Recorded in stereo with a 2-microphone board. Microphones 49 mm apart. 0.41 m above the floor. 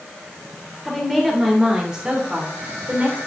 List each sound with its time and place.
0.8 s a woman speaking: centre (ahead or behind), 1.6 m; by 3.2 s 30° right (ahead or behind), 1.5 m